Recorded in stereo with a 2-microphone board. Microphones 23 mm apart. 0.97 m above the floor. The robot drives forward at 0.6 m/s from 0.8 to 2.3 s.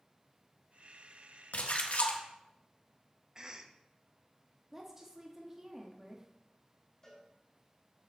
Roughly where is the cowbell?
Left.